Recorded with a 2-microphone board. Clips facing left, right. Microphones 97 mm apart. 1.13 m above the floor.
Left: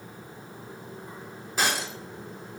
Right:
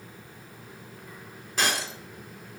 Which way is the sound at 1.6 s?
5° left (ahead or behind).